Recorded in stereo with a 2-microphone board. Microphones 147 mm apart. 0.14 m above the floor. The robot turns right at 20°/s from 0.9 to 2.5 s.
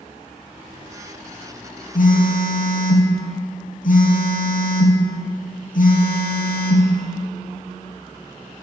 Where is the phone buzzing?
75° left (ahead or behind), 1.1 m.